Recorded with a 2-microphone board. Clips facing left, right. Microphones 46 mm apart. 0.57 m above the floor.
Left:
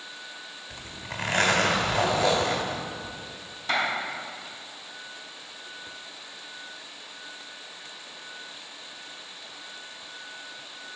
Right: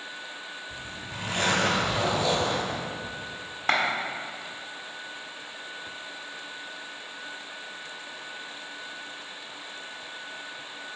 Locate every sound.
0.7 s a zipper: 75° left (ahead or behind), 1.9 m
3.7 s a clap: 55° right (ahead or behind), 1.6 m